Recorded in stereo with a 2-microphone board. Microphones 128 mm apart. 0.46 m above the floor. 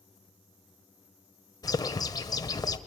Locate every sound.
1.6 s a bird: 30° left (ahead or behind), 1.7 m